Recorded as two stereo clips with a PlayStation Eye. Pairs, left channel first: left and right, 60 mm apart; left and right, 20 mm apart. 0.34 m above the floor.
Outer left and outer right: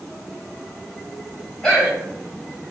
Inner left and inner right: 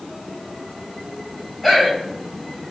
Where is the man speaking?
10° left (ahead or behind), 1.9 m.